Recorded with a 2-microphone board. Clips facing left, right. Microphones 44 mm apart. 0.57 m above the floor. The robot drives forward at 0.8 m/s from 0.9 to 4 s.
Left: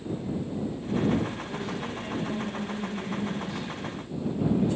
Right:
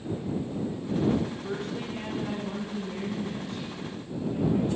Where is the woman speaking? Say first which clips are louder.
Even; 80° right, 6 m; by 4.7 s 70° right (ahead or behind), 6.5 m.